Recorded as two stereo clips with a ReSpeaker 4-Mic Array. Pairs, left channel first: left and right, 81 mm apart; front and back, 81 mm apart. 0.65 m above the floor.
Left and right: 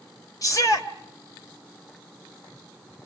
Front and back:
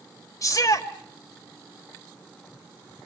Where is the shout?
45° left, 2 m.